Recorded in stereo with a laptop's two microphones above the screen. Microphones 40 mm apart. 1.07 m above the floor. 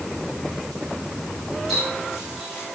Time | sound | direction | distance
1.7 | a running tap | centre (ahead or behind) | 5.5 m